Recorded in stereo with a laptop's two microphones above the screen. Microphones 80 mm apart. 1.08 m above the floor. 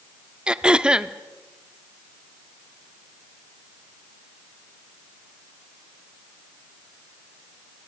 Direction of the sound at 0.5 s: 10° right (ahead or behind).